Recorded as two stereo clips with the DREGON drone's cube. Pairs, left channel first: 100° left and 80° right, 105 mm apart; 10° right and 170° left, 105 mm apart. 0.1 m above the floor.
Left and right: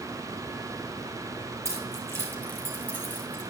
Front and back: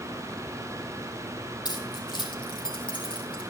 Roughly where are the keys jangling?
Ahead left.